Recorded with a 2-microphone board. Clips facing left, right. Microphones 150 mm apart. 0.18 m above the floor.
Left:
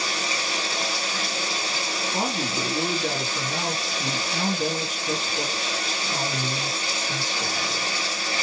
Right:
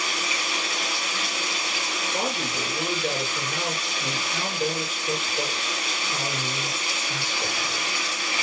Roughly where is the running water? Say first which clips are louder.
Left 1 dB; left.